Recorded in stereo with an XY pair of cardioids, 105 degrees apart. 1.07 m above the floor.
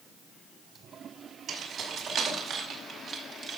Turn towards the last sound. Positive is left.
turn(degrees=-50)